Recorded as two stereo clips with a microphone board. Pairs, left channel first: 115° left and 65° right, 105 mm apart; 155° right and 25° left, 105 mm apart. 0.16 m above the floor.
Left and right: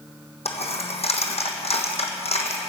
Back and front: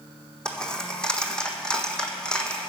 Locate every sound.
0.5 s a dropped coin: 120° left, 1.3 m